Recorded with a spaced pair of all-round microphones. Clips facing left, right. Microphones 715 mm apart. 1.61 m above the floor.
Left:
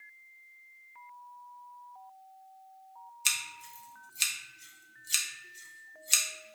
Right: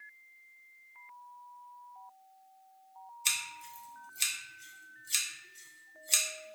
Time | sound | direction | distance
3.2 | scissors | 45° left (ahead or behind) | 0.6 m